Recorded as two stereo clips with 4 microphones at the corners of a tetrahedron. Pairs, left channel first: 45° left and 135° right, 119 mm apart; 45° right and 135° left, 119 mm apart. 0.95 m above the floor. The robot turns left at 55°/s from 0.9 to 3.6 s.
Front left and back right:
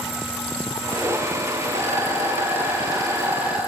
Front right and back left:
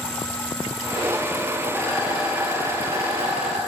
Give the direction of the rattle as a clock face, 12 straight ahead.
4 o'clock.